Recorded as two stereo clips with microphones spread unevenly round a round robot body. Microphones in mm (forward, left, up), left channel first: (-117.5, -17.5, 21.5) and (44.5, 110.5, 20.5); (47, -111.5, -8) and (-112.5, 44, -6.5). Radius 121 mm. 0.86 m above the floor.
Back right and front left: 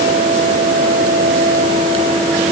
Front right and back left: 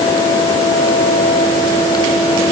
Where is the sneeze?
I don't hear a sneeze.